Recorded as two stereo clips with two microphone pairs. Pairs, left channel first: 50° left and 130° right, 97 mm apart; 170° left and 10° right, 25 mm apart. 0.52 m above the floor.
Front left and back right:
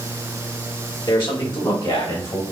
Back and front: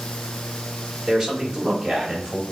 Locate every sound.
1.1 s a man speaking: 50° left, 1.2 m; by 2.4 s 40° left, 2.5 m